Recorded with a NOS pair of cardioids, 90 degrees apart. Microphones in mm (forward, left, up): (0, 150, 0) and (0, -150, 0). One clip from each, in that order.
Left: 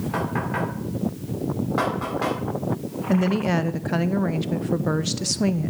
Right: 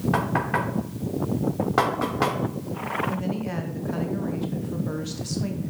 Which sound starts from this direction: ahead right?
Knocking, at 0.1 s.